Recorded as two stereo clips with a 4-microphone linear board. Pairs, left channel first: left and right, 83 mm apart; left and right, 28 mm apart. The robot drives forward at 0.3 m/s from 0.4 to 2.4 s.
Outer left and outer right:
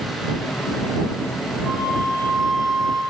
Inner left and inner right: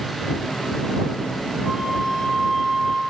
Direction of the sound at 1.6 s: 5° right (ahead or behind).